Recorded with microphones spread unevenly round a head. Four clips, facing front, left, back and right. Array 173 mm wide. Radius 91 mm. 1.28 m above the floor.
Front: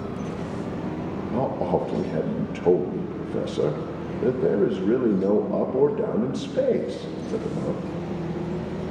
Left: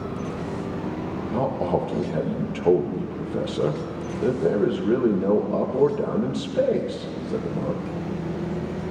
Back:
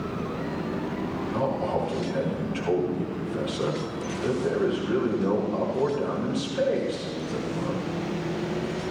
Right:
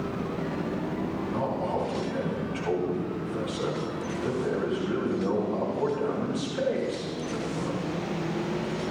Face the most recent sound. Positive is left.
turn(degrees=40)